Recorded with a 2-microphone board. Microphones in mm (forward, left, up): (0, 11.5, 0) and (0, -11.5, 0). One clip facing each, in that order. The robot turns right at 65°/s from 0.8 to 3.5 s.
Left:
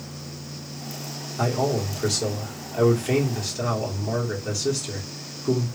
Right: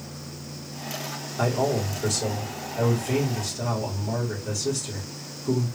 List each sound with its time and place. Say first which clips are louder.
1.4 s a man speaking: even; 5° left, 1.7 m; by 5.7 s 140° left, 1.7 m